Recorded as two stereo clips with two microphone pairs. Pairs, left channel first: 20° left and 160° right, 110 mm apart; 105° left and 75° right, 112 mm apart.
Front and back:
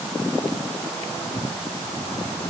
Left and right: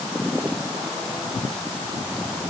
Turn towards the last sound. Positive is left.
No sound to turn to.